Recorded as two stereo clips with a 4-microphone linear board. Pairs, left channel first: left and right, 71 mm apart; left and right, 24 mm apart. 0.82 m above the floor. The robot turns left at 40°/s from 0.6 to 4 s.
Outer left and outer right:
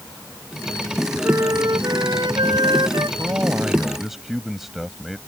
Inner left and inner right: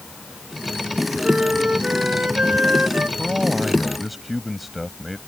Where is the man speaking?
145° right; by 5.2 s 175° right.